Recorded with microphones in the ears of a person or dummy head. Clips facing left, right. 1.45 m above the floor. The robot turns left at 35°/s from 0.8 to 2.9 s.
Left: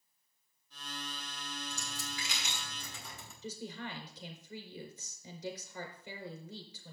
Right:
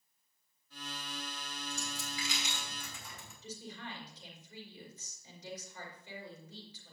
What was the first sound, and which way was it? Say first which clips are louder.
A dropped coin: right 2 dB; 30° left (ahead or behind).